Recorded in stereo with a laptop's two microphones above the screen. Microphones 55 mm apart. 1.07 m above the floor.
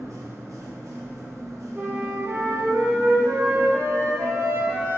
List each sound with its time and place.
0.0 s a machine running: 75° right (ahead or behind), 1.1 m
1.8 s a flute: 45° right (ahead or behind), 1.3 m